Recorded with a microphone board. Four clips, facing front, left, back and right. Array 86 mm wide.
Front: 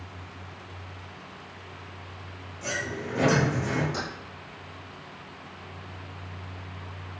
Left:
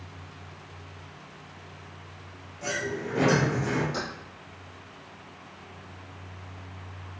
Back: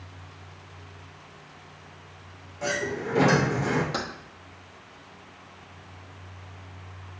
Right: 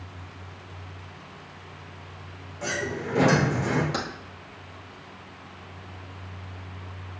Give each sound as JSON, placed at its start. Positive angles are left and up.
{"t": 2.6, "sound": "a sliding door", "azimuth_deg": -145, "distance_m": 2.5}
{"t": 3.9, "sound": "keys jangling", "azimuth_deg": -135, "distance_m": 1.8}